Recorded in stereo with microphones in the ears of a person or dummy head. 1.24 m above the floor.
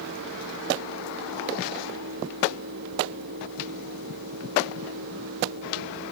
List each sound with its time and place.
Only background noise.